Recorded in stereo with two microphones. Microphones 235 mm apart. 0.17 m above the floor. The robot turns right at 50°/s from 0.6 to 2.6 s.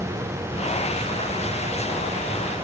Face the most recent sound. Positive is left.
No sound to turn to.